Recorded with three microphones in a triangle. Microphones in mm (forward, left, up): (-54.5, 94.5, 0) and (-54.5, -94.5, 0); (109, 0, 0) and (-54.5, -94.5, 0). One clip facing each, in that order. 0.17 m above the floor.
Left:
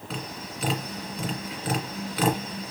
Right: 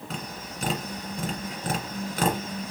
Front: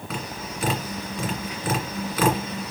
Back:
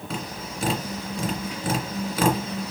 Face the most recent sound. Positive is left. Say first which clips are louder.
# left 3 dB, even
turn(degrees=-100)